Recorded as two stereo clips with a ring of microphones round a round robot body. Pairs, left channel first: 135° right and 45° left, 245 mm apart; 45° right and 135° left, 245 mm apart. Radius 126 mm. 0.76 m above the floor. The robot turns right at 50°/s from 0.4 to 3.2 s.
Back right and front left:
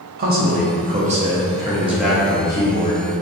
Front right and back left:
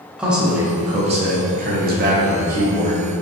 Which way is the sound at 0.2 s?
50° left.